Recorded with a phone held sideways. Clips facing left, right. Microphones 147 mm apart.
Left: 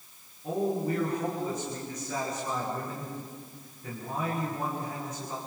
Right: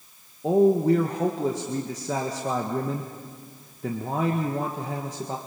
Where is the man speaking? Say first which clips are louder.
Right 10 dB; 75° right (ahead or behind), 1.8 m.